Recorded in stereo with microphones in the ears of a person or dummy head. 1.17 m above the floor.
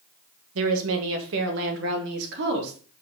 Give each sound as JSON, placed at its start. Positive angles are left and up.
{"t": 0.6, "sound": "a woman speaking", "side_deg": -65, "distance_m": 1.1}